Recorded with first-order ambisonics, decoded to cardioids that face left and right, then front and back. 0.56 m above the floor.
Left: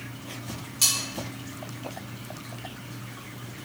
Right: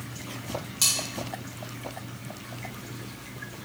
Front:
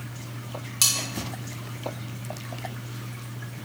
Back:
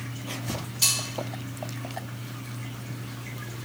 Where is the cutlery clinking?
5° right, 1.6 m.